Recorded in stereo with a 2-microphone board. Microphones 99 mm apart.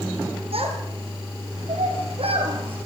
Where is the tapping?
No tapping in this recording.